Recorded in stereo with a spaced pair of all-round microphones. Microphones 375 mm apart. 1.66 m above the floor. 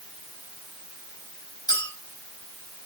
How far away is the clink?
About 5.5 m.